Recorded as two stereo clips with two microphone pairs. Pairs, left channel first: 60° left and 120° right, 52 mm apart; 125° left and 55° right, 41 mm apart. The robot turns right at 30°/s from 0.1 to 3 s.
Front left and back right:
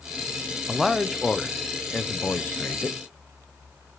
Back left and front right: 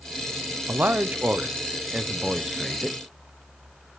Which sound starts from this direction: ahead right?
A man speaking, at 0.7 s.